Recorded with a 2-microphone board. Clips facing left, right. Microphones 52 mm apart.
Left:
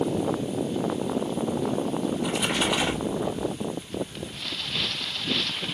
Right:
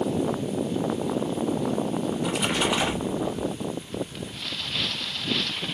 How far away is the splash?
About 1.0 m.